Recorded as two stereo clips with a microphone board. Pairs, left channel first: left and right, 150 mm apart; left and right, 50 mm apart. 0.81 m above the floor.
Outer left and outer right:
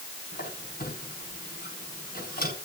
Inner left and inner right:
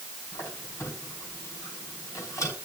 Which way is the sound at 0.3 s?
80° left.